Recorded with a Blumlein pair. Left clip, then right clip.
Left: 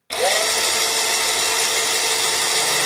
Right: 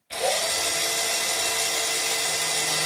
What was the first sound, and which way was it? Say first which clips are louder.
A drill: left 6 dB; 40° left.